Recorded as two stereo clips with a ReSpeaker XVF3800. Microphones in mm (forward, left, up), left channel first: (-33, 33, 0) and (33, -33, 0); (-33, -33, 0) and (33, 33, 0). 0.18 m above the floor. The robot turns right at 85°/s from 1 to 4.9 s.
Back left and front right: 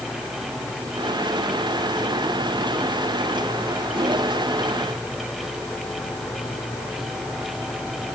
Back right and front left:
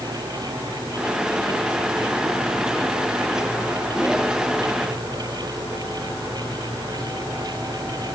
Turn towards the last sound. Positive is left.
No sound to turn to.